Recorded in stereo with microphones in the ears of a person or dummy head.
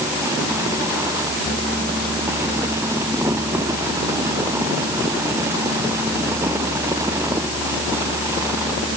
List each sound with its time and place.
Only background noise.